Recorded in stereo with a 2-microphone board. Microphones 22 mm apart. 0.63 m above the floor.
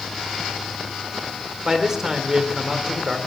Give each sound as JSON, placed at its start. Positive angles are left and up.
{"t": 1.6, "sound": "a man speaking", "side_deg": -20, "distance_m": 2.5}